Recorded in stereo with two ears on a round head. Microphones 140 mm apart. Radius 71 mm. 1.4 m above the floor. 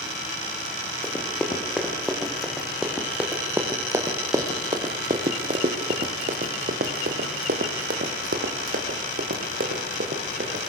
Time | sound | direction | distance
1.0 | running footsteps | 10° left (ahead or behind) | 3.5 m